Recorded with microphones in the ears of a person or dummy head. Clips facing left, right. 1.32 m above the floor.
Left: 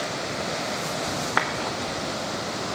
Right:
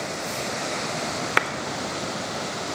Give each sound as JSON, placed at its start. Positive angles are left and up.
{"t": 1.4, "sound": "a clap", "side_deg": -30, "distance_m": 0.6}